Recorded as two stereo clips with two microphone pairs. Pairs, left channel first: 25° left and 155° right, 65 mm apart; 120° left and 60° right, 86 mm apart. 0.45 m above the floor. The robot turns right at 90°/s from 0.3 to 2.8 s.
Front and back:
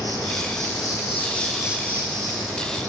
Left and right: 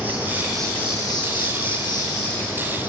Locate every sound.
0.0 s an insect: 10° left, 6 m; by 2.9 s 125° right, 6 m